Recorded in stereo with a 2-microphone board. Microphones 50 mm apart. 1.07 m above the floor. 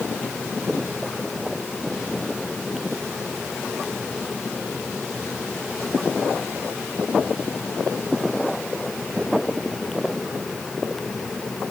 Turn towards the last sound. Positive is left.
No sound to turn to.